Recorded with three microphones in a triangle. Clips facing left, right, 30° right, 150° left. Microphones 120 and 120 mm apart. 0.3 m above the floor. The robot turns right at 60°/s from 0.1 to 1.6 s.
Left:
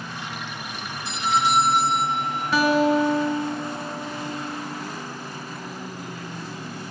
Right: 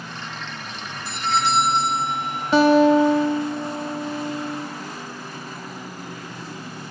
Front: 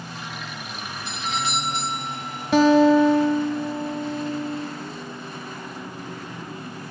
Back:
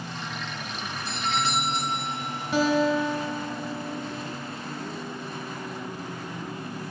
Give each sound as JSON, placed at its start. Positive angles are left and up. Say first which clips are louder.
{"t": 1.1, "sound": "a doorbell", "louder": "even, back 1 dB", "azimuth_deg": 130, "distance_m": 1.5}
{"t": 2.5, "sound": "a guitar", "louder": "right 5 dB, front 8 dB", "azimuth_deg": -25, "distance_m": 0.6}